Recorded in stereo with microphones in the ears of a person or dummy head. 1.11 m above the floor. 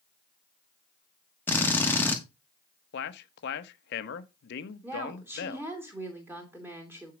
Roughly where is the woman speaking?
Centre.